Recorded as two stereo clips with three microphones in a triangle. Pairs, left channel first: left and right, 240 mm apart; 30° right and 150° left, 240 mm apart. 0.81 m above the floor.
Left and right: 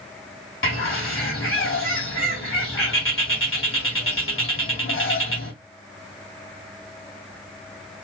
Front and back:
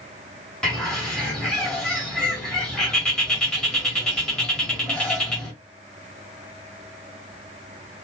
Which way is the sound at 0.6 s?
55° left.